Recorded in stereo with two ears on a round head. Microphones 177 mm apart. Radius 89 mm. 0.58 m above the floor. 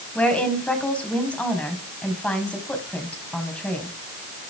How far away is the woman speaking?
About 4.5 m.